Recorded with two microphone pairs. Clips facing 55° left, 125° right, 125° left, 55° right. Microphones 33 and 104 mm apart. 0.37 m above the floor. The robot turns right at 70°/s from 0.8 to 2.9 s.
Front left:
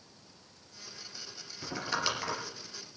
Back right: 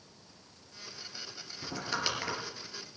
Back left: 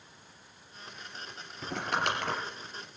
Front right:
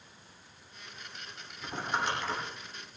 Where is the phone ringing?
I don't hear a phone ringing.